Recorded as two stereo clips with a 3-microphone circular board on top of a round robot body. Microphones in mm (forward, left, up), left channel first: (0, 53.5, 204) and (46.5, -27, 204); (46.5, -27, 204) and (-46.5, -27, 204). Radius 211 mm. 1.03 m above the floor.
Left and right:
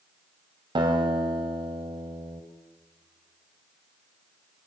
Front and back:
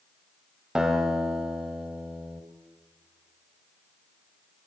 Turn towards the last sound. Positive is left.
turn(degrees=-100)